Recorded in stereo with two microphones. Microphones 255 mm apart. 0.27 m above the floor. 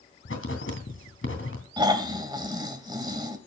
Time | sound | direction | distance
0.2 | writing | 55° left (ahead or behind) | 2.5 m
1.8 | snoring | 15° right (ahead or behind) | 1.6 m